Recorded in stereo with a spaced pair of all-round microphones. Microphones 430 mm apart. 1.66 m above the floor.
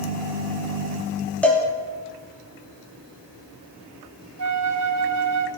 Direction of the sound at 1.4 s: 5° left (ahead or behind).